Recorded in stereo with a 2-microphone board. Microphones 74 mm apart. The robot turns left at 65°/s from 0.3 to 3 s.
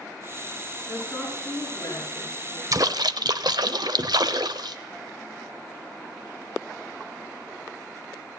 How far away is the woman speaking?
About 6 m.